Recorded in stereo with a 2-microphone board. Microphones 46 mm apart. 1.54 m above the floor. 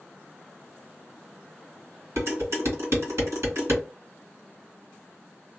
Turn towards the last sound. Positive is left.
turn(degrees=-70)  # may be behind; listen again after turning